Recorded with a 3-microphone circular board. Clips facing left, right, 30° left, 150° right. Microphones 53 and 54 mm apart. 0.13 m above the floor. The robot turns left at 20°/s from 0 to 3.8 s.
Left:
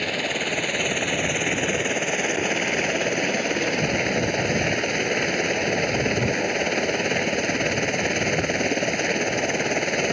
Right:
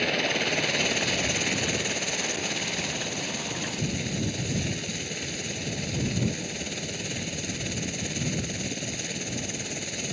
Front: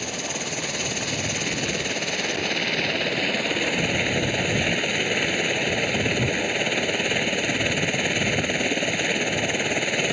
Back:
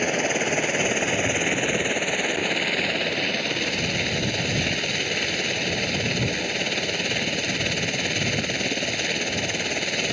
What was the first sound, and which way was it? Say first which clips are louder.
A helicopter: left 1 dB, back 7 dB; straight behind.